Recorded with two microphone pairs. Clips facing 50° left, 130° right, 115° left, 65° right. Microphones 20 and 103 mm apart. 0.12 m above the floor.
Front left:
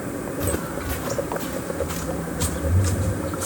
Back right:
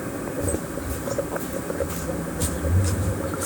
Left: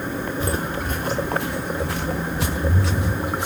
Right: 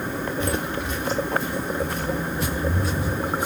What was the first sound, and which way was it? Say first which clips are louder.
Footsteps: front left 2 dB, left 1 dB; 55° left.